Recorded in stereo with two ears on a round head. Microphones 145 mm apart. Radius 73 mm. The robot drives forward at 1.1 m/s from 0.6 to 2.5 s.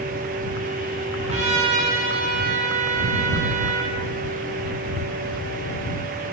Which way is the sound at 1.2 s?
45° right (ahead or behind).